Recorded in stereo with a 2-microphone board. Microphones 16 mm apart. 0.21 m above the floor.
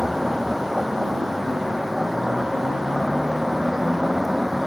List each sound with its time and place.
0.0 s a vehicle: 10° right (ahead or behind)